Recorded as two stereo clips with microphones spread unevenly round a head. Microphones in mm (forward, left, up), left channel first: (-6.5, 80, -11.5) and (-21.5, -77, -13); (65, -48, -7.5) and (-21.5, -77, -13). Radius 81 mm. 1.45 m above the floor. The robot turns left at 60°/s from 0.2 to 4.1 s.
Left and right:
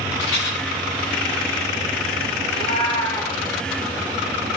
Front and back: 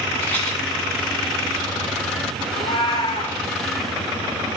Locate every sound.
0.2 s a rattle: 100° left, 6.5 m; by 0.6 s 80° left, 6.5 m
2.5 s a cat meowing: 50° left, 1.8 m; by 3.4 s straight ahead, 1.8 m